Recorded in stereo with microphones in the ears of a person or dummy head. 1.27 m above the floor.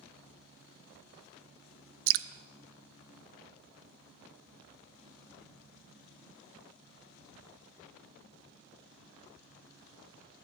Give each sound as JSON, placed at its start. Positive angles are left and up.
{"t": 2.1, "sound": "dripping", "side_deg": -65, "distance_m": 0.5}